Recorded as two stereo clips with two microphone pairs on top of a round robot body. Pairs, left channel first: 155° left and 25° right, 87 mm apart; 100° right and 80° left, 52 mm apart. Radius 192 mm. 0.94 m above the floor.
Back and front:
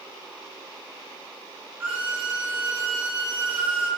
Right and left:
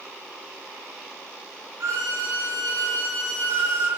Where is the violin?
50° left, 1.8 m.